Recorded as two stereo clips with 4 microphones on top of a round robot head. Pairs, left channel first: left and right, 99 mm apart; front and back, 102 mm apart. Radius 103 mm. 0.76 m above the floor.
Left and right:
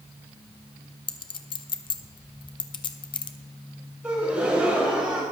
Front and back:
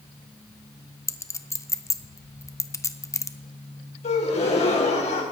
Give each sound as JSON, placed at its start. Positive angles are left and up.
{"t": 1.1, "sound": "a clink", "azimuth_deg": 55, "distance_m": 0.8}
{"t": 4.0, "sound": "a gasp", "azimuth_deg": -10, "distance_m": 2.5}